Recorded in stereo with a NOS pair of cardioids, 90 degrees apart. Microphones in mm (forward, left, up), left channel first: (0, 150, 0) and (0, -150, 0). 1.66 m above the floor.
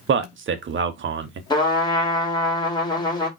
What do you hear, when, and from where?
0.1 s a man speaking: 40° right, 0.8 m
1.5 s a trumpet: 15° left, 1.2 m